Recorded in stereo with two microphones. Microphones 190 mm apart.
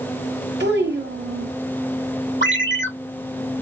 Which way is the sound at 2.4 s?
85° right.